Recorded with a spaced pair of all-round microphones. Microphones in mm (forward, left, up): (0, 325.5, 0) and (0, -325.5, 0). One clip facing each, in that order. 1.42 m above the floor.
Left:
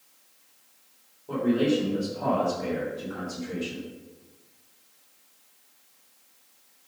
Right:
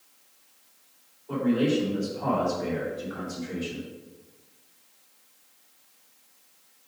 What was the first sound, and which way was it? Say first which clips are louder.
A man speaking: even; 80° left.